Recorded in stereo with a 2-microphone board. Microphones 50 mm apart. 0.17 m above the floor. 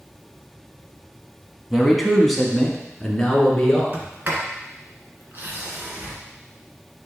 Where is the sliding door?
40° right (ahead or behind), 1.6 m.